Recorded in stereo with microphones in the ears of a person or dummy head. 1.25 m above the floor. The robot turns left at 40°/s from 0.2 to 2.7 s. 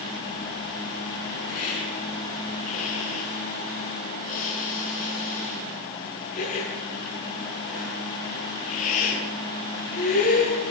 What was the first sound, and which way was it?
A hiss, 85° left.